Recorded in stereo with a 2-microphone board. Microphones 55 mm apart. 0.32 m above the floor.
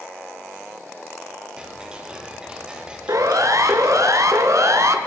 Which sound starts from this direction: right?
A siren, at 3.1 s.